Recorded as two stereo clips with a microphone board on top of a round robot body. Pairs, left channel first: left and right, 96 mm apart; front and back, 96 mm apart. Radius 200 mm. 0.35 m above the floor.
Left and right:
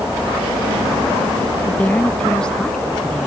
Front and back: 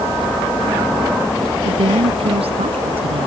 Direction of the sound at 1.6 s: 165° left.